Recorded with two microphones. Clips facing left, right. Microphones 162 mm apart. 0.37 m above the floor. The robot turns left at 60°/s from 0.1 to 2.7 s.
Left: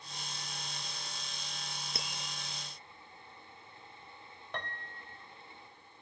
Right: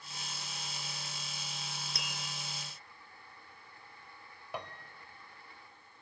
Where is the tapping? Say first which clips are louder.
Left 1 dB; 25° left (ahead or behind), 5.5 m; by 2.2 s 40° left (ahead or behind), 5.5 m.